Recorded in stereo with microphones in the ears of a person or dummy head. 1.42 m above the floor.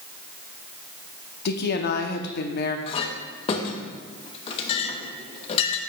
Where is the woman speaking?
55° left (ahead or behind), 0.7 m.